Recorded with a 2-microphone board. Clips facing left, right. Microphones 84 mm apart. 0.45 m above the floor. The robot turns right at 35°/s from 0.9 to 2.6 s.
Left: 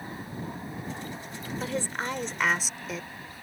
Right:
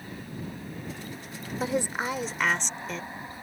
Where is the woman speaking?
30° right; by 3.1 s 5° left.